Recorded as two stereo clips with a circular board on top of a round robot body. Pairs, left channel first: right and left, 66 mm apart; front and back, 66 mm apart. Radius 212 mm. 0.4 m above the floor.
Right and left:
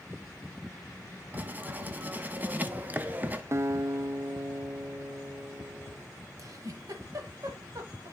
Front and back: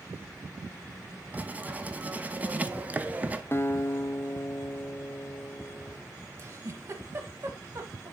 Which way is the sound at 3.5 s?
50° left.